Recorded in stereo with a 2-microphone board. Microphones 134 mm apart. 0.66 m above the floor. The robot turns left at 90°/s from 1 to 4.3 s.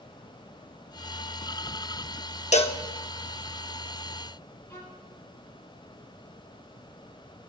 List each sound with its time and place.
2.5 s a cowbell: 60° left (ahead or behind), 0.7 m; by 2.8 s 40° left (ahead or behind), 0.7 m
4.7 s a violin: 20° left (ahead or behind), 5.5 m